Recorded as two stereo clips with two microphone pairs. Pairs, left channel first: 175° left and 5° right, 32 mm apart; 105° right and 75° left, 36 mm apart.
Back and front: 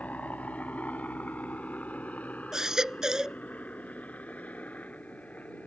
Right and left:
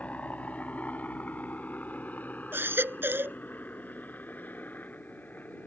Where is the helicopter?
150° right; by 5.7 s 140° right.